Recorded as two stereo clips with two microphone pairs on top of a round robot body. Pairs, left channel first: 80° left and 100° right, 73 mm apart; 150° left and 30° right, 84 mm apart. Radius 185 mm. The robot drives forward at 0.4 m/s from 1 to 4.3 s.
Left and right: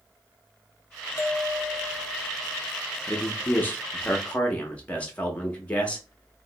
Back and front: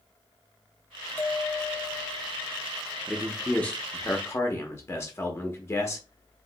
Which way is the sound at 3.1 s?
80° left.